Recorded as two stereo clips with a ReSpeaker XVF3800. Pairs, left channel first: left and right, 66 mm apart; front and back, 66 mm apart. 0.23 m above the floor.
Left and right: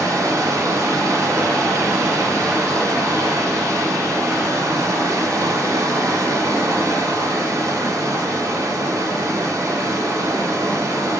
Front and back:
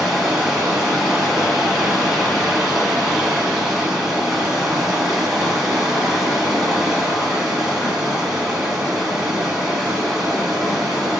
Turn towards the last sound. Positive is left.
turn(degrees=-95)